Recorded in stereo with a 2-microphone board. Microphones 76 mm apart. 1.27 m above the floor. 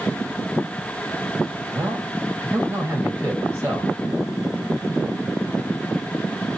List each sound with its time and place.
1.7 s a man speaking: 20° right (ahead or behind), 1.9 m